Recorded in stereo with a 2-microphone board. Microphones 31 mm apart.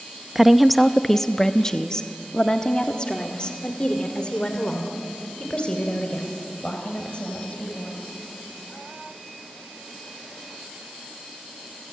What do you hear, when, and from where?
0.3 s a woman speaking: 10° right (ahead or behind), 0.6 m; by 8.0 s 35° left (ahead or behind), 4.5 m